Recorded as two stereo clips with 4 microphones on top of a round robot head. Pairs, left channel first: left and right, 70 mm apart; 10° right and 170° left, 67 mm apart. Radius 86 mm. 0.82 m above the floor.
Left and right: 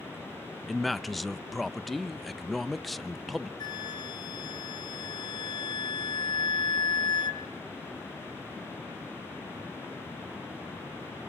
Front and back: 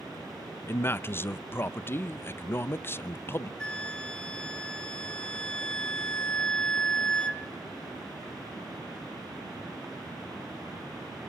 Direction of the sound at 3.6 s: 65° left.